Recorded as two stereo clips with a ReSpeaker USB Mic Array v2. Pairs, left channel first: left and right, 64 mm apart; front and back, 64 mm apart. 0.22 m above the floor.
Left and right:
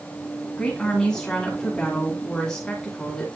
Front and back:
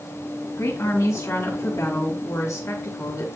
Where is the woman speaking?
15° left, 2.5 m.